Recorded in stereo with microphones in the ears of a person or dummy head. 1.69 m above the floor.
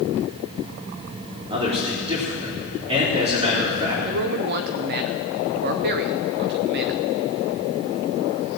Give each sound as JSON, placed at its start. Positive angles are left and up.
{"t": 1.5, "sound": "a man speaking", "side_deg": -30, "distance_m": 3.5}
{"t": 4.0, "sound": "a man speaking", "side_deg": -55, "distance_m": 0.8}